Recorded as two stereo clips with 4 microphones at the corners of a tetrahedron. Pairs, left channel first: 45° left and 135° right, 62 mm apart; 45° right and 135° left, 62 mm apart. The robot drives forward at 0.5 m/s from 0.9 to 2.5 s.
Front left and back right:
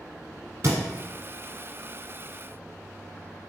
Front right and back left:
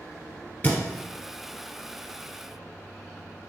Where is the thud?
105° right, 1.2 m.